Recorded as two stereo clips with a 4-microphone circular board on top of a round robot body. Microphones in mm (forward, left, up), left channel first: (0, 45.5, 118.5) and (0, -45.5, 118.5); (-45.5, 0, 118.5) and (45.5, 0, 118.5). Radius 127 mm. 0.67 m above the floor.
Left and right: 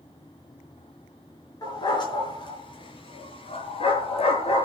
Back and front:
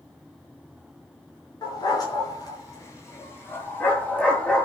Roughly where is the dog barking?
Behind left.